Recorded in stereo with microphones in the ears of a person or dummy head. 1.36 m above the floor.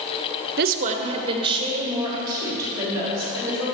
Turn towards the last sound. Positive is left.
turn(degrees=-15)  # may be behind; listen again after turning